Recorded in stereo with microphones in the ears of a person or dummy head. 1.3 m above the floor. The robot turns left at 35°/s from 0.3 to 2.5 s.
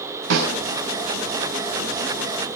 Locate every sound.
0.3 s a snare drum: 65° right (ahead or behind), 4.5 m; by 0.6 s 75° right (ahead or behind), 4.5 m